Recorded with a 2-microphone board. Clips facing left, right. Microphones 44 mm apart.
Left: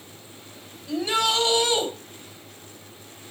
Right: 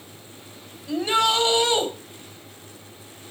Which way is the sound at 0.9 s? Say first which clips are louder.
Right 3 dB; 35° right (ahead or behind).